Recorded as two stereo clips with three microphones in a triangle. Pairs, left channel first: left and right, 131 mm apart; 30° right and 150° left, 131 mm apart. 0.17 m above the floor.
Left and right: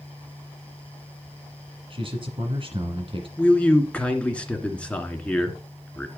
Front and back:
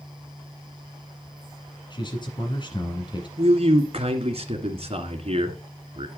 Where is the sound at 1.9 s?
65° right, 1.8 m.